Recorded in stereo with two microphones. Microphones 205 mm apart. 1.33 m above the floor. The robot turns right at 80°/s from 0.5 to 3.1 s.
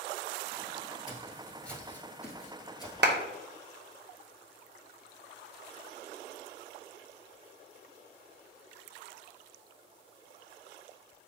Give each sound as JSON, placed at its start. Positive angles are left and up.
{"t": 1.1, "sound": "footsteps", "side_deg": 20, "distance_m": 1.5}
{"t": 3.0, "sound": "a clap", "side_deg": -55, "distance_m": 0.7}